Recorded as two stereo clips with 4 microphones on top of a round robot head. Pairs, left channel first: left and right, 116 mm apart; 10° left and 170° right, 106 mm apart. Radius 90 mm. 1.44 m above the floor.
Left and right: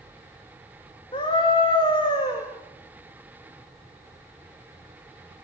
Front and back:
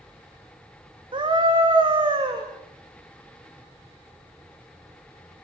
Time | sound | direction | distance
1.1 | a scream | 145° left | 2.5 m